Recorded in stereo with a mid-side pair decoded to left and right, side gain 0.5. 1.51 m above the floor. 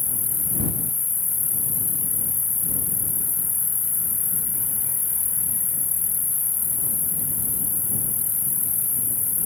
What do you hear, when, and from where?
0.0 s an insect: 30° left